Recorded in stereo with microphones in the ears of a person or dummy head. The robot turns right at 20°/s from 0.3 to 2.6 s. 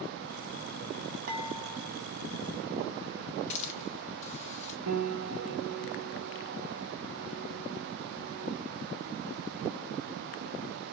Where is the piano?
75° right (ahead or behind), 1.6 m.